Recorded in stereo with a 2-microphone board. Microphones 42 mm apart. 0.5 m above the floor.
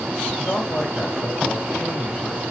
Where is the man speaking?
45° left (ahead or behind), 3 m.